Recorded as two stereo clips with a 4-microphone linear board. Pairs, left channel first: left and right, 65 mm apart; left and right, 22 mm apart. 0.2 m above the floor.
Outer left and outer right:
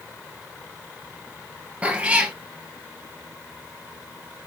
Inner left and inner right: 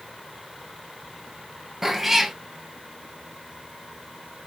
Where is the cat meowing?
20° right (ahead or behind), 1.3 m.